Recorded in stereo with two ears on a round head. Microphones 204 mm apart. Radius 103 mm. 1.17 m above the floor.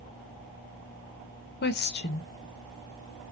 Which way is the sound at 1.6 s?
45° left (ahead or behind).